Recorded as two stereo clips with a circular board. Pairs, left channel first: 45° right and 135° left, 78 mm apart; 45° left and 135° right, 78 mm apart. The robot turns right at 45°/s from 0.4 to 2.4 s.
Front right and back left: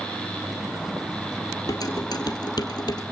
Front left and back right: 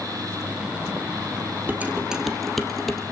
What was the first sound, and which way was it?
Dishes clattering, 75° right.